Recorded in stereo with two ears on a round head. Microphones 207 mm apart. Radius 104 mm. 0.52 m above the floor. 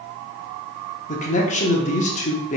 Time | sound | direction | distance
1.1 | a man speaking | 30° left (ahead or behind) | 0.8 m